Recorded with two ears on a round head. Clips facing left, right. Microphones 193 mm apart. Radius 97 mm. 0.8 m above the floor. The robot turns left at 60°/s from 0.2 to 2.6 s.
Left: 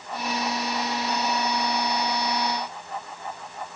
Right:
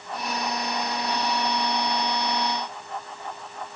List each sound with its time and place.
Only background noise.